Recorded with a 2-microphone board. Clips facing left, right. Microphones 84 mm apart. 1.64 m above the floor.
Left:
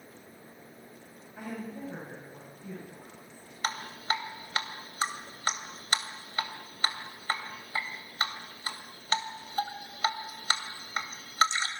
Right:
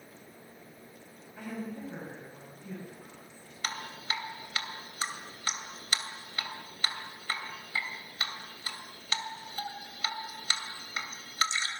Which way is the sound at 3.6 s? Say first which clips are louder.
Left 5 dB; 35° left (ahead or behind).